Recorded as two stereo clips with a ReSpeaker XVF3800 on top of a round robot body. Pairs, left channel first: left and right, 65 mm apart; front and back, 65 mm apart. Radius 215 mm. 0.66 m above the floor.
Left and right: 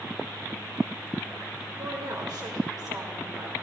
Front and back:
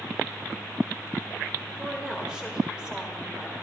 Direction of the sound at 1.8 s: 100° right.